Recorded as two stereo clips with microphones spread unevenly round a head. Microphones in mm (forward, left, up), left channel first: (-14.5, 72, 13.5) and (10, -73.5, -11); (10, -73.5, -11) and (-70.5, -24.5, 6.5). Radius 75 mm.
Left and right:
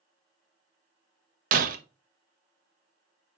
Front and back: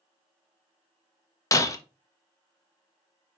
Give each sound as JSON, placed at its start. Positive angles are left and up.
{"t": 1.5, "sound": "breaking glass", "azimuth_deg": -85, "distance_m": 1.2}